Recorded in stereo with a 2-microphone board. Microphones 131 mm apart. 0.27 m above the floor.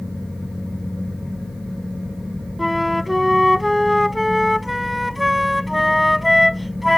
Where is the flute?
Centre (ahead or behind).